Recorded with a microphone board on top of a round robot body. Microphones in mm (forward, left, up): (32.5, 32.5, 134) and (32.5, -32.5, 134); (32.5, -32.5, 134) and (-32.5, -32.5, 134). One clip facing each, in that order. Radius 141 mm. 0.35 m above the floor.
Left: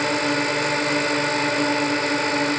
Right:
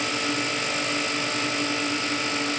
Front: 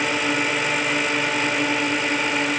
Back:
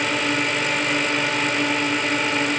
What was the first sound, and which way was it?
A drone, 85° left.